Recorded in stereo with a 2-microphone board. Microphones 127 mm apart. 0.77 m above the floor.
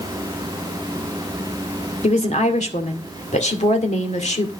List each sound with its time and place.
2.0 s a woman speaking: 65° left (ahead or behind), 2 m